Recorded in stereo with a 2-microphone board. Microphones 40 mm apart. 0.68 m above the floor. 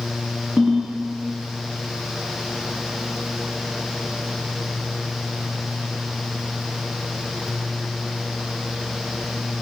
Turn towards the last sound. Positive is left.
turn(degrees=-10)  # may be behind; listen again after turning